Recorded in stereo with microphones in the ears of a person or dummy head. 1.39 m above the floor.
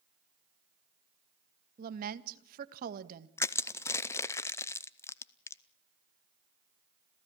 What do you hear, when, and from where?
1.8 s a woman speaking: 50° right (ahead or behind), 1.5 m
3.4 s crushing: 10° left (ahead or behind), 0.5 m